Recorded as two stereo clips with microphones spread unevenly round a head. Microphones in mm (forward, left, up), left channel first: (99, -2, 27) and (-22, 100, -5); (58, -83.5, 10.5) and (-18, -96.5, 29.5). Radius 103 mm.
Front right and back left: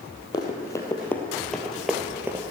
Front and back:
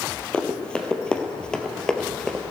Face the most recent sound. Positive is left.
turn(degrees=-145)